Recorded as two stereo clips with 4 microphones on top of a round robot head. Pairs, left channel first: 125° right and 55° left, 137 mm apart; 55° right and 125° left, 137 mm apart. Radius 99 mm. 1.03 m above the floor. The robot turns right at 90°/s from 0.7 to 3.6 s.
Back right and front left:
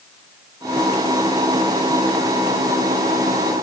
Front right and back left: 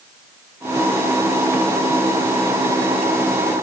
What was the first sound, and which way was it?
Only background noise.